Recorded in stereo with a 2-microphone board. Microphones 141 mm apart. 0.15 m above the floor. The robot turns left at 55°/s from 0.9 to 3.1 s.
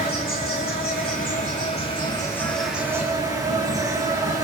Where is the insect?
95° left, 8 m; by 4.5 s 25° right, 8 m.